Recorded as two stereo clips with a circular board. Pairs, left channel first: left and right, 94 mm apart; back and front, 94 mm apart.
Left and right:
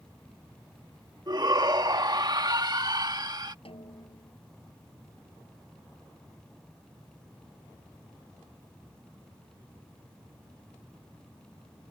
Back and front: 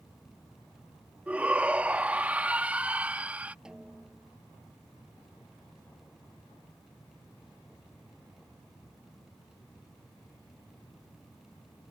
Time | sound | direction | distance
1.3 | a shout | 70° right | ?
3.6 | a snare drum | 80° left | ?